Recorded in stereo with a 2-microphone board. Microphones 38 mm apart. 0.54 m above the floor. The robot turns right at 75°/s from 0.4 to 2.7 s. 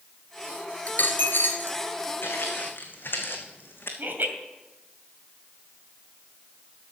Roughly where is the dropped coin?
Ahead left.